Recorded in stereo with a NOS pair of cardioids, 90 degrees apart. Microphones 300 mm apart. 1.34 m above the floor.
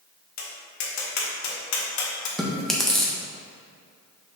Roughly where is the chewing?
Ahead.